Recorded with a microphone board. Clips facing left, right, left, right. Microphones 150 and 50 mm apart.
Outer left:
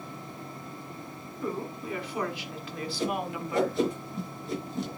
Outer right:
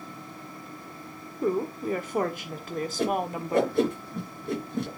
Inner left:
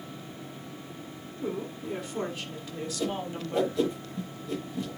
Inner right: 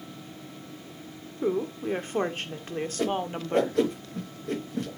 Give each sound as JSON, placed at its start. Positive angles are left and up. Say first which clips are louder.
{"t": 1.4, "sound": "a woman speaking", "louder": "outer right 7 dB, inner right 7 dB", "side_deg": -40, "distance_m": 1.5}
{"t": 3.0, "sound": "a whoosh", "louder": "outer right 3 dB, inner right 3 dB", "side_deg": -55, "distance_m": 5.0}